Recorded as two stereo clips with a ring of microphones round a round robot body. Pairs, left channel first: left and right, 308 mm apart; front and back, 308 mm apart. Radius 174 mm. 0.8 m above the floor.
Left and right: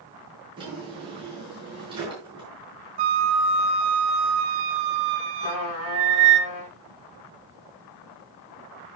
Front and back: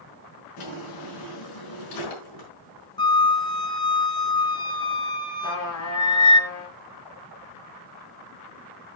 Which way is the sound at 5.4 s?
50° left.